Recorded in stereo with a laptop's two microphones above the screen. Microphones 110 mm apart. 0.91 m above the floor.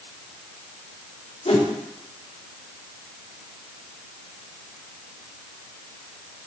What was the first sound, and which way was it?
A whoosh, 85° left.